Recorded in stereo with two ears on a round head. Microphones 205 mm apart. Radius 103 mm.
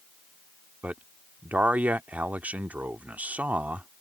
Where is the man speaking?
5° right (ahead or behind).